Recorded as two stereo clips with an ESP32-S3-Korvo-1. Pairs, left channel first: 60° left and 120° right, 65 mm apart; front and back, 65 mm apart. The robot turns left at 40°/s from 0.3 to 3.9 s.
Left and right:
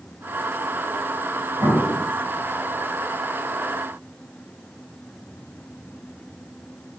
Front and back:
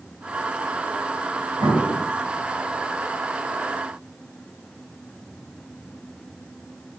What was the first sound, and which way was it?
An explosion, 155° right.